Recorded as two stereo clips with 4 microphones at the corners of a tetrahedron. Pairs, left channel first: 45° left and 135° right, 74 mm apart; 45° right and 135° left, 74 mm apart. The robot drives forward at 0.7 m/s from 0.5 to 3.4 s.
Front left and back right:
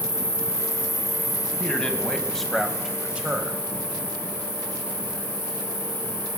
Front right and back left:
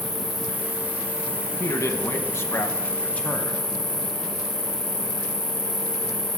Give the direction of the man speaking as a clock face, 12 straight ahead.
1 o'clock.